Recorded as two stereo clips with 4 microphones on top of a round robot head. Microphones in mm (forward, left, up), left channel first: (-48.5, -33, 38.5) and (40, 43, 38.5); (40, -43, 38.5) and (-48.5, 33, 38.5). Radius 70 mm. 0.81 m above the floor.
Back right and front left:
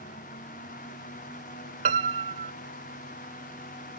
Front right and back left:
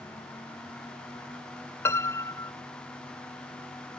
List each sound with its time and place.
1.9 s a piano: 25° left